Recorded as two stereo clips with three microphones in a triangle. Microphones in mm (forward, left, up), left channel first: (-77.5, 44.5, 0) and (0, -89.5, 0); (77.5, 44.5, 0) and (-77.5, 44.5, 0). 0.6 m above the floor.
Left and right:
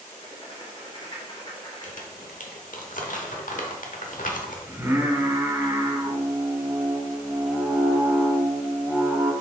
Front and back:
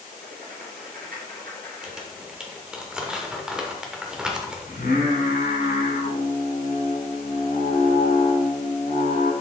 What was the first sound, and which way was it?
Writing, straight behind.